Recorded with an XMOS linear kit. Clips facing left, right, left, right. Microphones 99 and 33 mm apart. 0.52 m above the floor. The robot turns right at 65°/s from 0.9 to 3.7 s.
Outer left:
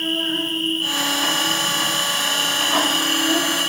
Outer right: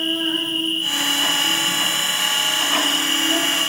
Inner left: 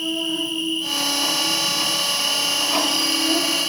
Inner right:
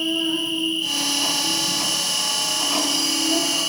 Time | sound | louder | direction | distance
0.0 | an insect | even, inner right 1 dB | 15° right | 1.1 m